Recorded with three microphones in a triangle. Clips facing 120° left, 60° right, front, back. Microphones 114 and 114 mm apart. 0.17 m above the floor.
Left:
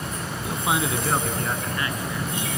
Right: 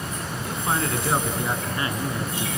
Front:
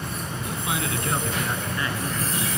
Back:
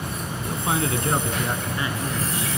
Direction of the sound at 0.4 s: 175° left.